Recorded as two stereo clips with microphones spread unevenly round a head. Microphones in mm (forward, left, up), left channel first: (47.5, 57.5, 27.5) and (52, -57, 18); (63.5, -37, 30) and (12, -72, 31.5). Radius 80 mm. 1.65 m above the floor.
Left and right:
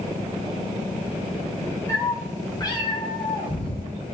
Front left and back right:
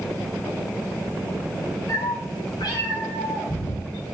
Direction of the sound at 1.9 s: 30° left.